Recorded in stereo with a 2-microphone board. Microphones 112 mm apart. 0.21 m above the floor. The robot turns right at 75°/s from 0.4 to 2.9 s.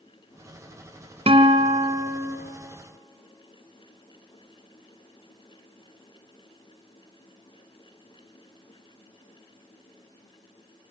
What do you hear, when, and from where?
1.3 s a guitar: 85° right, 1.6 m; by 2.4 s 5° right, 1.6 m